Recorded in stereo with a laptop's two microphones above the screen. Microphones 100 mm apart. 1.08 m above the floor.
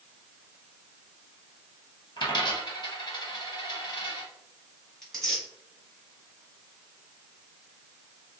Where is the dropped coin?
45° left (ahead or behind), 1.4 m.